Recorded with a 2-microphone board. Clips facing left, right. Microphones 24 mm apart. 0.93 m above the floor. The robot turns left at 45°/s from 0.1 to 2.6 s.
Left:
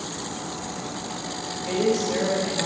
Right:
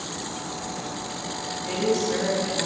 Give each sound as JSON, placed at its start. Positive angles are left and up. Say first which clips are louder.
{"t": 1.6, "sound": "a woman speaking", "louder": "left 1 dB", "azimuth_deg": 125, "distance_m": 5.0}